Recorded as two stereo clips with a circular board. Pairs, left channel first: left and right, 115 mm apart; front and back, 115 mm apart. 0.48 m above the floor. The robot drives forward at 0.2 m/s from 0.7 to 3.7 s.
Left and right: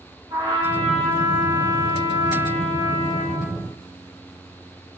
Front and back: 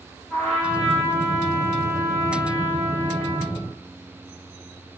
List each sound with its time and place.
0.3 s a trumpet: 85° right, 1.7 m; by 3.5 s 110° right, 1.8 m